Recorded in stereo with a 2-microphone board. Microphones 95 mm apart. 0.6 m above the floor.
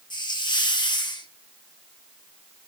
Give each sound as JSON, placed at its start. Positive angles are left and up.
{"t": 0.1, "sound": "a hiss", "side_deg": 50, "distance_m": 0.9}